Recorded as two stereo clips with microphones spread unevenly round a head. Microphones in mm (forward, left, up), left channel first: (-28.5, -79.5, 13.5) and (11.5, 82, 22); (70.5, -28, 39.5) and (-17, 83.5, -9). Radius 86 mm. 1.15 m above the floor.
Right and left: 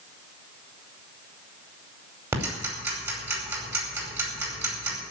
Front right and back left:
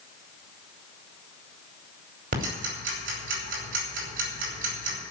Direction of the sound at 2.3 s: 150° left.